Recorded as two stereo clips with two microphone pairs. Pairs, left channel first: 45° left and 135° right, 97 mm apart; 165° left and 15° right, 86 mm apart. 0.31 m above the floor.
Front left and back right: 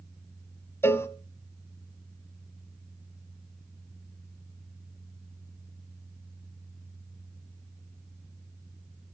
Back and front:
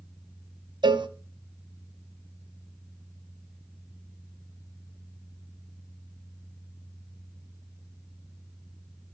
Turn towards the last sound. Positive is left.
turn(degrees=-15)